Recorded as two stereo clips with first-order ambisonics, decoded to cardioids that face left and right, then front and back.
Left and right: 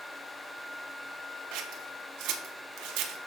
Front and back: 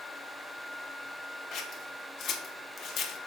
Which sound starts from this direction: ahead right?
Scissors, at 1.5 s.